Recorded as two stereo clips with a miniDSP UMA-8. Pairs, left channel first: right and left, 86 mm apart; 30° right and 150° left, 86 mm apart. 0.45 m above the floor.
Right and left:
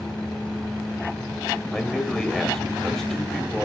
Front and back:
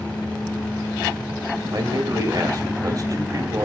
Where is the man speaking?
175° right, 2 m.